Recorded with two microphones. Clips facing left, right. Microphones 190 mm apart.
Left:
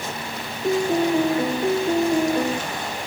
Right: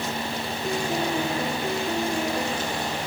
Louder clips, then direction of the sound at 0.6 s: Left 8 dB; 30° left (ahead or behind).